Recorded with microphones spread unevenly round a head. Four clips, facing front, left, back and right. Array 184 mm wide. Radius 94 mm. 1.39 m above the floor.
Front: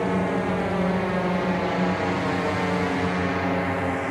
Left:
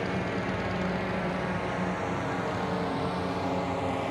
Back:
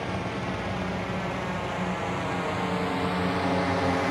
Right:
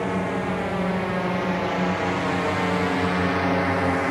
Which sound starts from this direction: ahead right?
A drone, at 0.0 s.